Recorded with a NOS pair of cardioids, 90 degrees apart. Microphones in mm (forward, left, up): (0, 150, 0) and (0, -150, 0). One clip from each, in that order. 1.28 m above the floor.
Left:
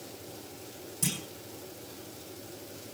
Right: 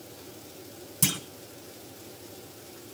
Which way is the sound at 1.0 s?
65° right.